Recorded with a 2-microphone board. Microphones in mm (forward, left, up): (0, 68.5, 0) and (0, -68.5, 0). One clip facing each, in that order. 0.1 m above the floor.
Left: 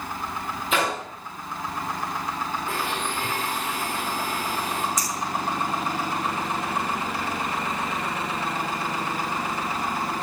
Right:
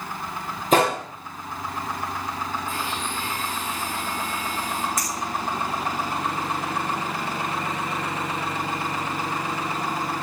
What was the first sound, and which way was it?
A gunshot, 40° right (ahead or behind).